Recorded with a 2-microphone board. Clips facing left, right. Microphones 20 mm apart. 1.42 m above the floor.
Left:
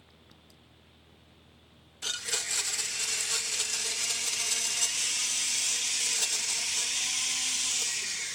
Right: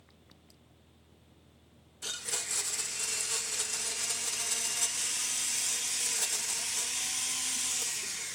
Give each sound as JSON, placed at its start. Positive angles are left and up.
{"t": 2.0, "sound": "a blender", "side_deg": 25, "distance_m": 1.2}